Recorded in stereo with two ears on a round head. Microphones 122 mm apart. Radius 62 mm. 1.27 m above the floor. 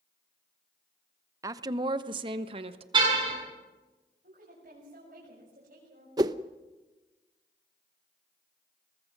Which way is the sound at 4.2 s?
75° right (ahead or behind).